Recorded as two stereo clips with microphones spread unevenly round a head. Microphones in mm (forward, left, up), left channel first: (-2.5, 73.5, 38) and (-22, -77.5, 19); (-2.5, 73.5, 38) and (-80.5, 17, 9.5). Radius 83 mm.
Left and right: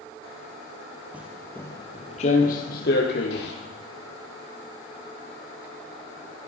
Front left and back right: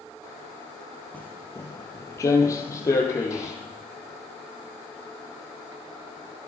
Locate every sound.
1.1 s footsteps: 10° right, 1.4 m; by 3.6 s 85° left, 3 m